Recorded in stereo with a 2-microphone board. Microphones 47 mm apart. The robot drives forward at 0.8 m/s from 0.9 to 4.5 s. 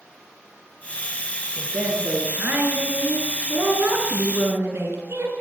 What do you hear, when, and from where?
1.6 s a woman speaking: 45° right (ahead or behind), 8 m; by 5.3 s 60° right (ahead or behind), 6.5 m